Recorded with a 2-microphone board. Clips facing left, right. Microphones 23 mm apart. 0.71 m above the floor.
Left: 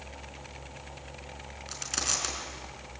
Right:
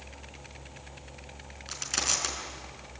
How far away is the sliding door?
No sliding door in this recording.